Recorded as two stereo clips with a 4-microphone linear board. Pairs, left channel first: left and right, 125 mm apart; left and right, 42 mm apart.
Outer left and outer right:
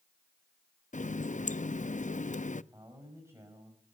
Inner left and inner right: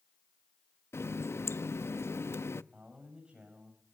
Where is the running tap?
85° left, 0.6 m.